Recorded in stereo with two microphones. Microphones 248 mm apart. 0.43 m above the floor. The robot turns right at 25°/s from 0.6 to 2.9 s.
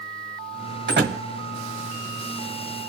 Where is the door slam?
50° right (ahead or behind), 2 m; by 1.2 s 40° right (ahead or behind), 2 m.